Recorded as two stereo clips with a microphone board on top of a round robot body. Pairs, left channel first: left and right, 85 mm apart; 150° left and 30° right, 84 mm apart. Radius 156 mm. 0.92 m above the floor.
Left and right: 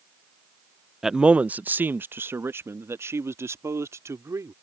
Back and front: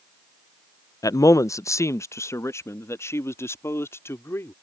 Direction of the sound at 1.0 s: 175° right.